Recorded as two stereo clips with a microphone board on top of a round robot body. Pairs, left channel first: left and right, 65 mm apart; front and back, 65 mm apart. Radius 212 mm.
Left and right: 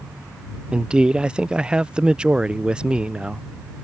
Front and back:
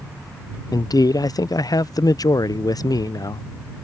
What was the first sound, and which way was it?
A man speaking, 15° right.